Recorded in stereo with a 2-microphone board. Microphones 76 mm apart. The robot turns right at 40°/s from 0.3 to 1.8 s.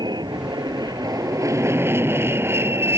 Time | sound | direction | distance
0.0 | an aircraft | 95° right | ?